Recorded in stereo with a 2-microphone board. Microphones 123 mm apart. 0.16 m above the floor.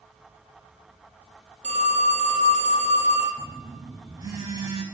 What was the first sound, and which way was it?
A phone ringing, 75° right (ahead or behind).